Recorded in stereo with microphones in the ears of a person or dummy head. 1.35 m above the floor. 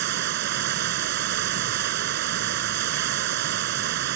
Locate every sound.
0.0 s running water: 55° right (ahead or behind)